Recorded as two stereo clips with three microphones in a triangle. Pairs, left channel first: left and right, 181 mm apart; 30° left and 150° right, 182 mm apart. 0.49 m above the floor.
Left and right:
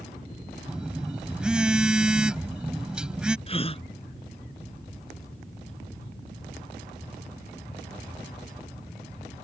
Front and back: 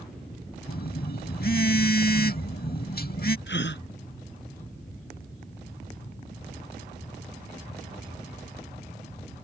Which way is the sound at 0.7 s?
5° right.